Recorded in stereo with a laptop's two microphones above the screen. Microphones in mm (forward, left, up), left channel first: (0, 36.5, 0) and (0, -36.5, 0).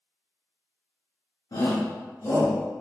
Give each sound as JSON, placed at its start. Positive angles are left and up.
{"t": 1.5, "sound": "a shout", "side_deg": 55, "distance_m": 0.6}